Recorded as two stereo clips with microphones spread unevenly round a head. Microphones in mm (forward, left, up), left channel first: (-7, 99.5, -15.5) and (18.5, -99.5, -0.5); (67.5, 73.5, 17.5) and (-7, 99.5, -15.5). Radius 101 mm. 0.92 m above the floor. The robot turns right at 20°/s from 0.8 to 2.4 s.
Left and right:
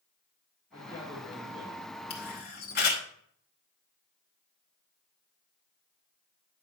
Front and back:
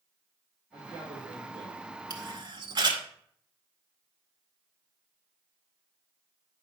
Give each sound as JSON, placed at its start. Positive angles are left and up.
{"t": 0.7, "sound": "a man speaking", "azimuth_deg": -160, "distance_m": 3.0}
{"t": 2.1, "sound": "a camera shutter", "azimuth_deg": 135, "distance_m": 1.9}